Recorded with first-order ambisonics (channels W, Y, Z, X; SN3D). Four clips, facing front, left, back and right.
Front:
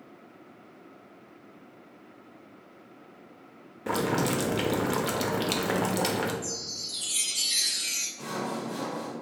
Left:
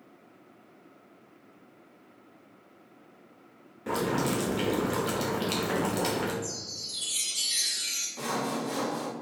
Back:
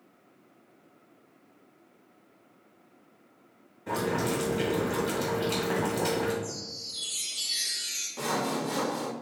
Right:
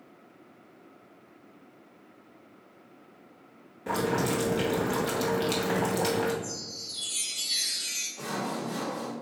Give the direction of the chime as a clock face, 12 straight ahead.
11 o'clock.